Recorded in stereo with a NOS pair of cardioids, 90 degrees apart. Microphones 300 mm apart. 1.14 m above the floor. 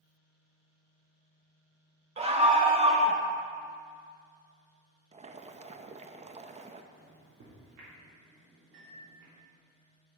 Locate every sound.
2.2 s a scream: 20° right, 0.6 m
5.1 s boiling: 25° right, 0.6 m
6.9 s a microwave: 60° right, 3 m